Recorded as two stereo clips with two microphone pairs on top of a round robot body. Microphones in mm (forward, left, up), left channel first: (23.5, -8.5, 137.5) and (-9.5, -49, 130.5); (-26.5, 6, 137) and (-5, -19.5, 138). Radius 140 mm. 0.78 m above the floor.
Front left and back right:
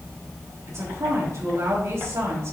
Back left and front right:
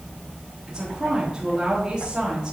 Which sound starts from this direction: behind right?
A woman speaking, at 0.7 s.